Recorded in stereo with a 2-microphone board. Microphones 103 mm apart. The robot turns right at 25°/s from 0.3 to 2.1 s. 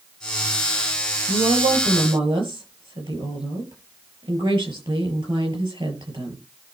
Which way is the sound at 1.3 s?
70° right (ahead or behind).